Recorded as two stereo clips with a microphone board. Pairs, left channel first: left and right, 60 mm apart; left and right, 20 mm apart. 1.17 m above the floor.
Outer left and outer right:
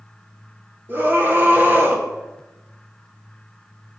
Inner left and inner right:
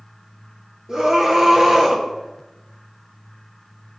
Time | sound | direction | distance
0.9 | a scream | 35° right (ahead or behind) | 1.5 m